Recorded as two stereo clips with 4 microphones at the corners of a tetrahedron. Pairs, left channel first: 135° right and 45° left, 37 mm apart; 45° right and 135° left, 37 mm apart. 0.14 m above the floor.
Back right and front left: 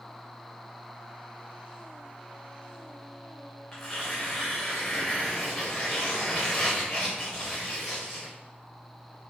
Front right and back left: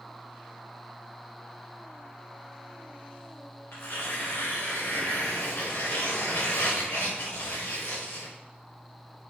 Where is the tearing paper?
60° right, 4.5 m.